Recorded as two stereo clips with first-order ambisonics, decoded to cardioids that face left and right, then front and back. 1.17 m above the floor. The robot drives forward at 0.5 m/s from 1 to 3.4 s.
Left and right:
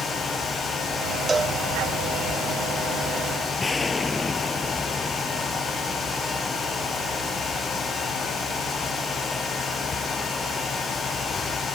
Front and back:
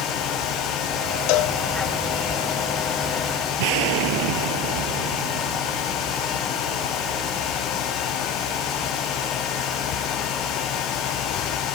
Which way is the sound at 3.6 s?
170° left.